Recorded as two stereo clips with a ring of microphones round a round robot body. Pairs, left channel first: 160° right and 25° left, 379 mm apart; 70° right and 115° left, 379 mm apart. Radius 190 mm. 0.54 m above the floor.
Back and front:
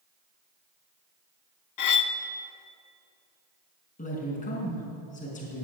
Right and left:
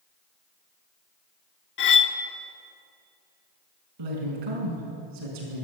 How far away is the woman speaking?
About 5 m.